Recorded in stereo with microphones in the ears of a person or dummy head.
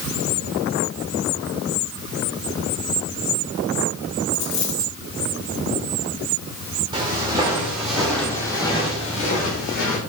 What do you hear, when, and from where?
4.3 s a dropped coin: 50° left (ahead or behind), 2.5 m
6.9 s footsteps: 20° right (ahead or behind), 3 m; by 10.0 s 55° left (ahead or behind), 3 m